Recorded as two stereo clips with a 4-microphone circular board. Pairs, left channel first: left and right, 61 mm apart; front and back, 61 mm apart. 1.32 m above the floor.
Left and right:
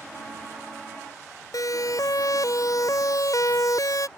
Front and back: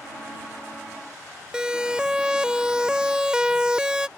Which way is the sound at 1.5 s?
105° left.